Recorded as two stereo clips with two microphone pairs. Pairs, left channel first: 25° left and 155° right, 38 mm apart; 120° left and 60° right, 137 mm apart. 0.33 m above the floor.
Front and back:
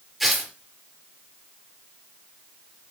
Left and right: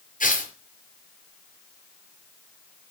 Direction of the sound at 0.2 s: 115° left.